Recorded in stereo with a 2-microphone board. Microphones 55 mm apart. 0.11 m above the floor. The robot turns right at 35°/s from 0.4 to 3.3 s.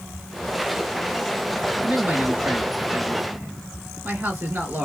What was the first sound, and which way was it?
A man speaking, 130° right.